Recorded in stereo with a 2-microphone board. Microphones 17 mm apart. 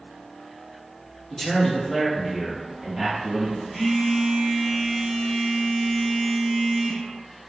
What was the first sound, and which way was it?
A man speaking, 30° left (ahead or behind).